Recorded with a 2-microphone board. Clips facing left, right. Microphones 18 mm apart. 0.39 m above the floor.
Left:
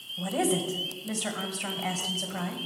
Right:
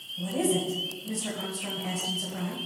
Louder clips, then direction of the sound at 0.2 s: Even; 50° left (ahead or behind).